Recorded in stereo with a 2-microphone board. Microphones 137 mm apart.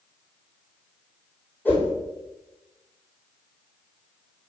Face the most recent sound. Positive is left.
turn(degrees=10)  # may be behind; listen again after turning